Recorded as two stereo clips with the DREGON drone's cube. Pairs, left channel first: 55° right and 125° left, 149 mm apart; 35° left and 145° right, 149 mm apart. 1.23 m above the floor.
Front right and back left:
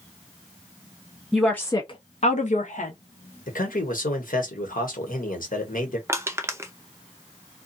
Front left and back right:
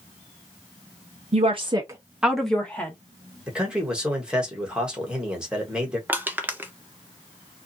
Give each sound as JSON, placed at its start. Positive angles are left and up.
{"t": 1.3, "sound": "a woman speaking", "azimuth_deg": -150, "distance_m": 0.6}
{"t": 3.5, "sound": "a man speaking", "azimuth_deg": -60, "distance_m": 1.1}
{"t": 6.1, "sound": "crushing", "azimuth_deg": 160, "distance_m": 0.5}